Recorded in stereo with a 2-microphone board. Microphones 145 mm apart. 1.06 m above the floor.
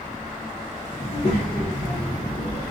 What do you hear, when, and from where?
1.0 s a child speaking: 70° left (ahead or behind), 0.8 m